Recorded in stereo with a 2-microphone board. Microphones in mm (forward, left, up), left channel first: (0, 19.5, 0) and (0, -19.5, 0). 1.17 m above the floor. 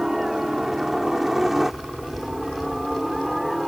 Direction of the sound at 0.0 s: 10° right (ahead or behind).